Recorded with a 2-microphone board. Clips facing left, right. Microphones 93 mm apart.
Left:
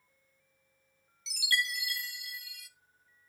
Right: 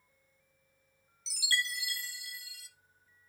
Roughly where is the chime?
Right.